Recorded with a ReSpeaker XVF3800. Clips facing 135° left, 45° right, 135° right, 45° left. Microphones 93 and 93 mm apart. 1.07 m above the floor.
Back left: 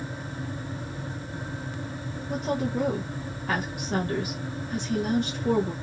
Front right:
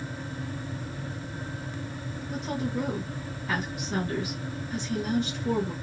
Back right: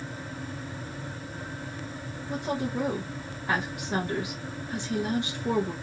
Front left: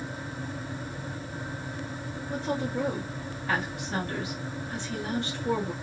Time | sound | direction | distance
2.3 | a woman speaking | 155° left | 1.1 m